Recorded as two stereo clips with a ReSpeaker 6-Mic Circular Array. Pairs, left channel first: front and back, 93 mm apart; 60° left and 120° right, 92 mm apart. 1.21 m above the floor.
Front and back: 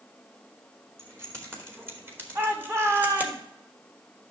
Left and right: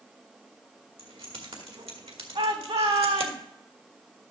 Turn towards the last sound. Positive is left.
turn(degrees=-120)